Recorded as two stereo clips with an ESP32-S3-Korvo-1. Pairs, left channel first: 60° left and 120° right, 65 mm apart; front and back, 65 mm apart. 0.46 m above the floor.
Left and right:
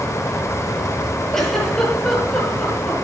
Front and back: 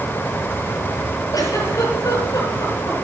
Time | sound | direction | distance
1.3 | a giggle | 20° right | 6.5 m